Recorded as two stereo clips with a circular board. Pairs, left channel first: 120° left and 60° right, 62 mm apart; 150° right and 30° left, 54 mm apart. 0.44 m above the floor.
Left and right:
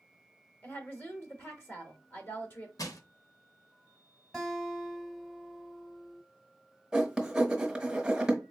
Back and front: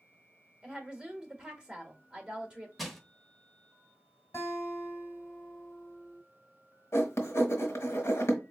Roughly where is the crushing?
Behind left.